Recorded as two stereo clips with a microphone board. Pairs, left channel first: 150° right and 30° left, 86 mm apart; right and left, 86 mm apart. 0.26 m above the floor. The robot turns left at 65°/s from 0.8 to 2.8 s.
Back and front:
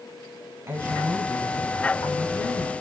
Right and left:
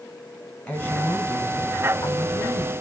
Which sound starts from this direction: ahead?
A woman speaking, at 0.7 s.